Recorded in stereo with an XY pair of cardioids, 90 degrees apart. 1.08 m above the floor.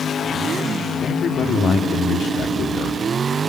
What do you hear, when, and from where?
1.0 s a man speaking: 55° left, 3 m